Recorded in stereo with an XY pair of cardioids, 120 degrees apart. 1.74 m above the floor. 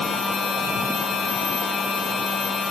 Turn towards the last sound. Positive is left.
turn(degrees=40)